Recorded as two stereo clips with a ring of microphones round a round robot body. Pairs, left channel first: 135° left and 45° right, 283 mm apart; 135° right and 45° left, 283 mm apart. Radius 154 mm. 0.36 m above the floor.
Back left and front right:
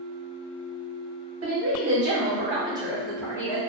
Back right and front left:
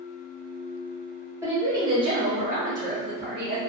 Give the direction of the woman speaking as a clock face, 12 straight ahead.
1 o'clock.